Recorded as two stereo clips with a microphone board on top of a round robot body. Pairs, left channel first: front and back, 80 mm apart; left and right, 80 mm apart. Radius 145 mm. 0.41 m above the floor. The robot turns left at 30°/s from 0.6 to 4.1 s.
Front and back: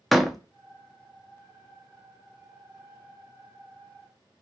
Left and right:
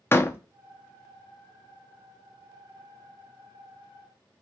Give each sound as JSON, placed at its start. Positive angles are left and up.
{"t": 0.1, "sound": "a door slam", "azimuth_deg": 95, "distance_m": 0.8}